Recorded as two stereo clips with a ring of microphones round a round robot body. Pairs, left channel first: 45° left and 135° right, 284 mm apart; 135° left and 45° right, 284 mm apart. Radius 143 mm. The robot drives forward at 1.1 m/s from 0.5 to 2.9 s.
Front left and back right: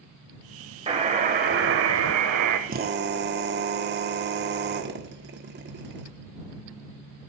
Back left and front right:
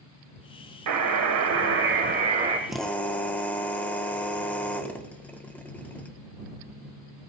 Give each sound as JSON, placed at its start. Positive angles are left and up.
{"t": 0.9, "sound": "a buzzer", "azimuth_deg": -65, "distance_m": 2.0}
{"t": 2.7, "sound": "a drill", "azimuth_deg": -130, "distance_m": 1.3}